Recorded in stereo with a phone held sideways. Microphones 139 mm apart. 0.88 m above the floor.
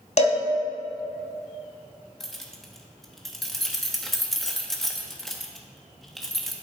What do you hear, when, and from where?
0.2 s a cowbell: 50° left (ahead or behind), 1.3 m
2.2 s keys jangling: centre (ahead or behind), 0.9 m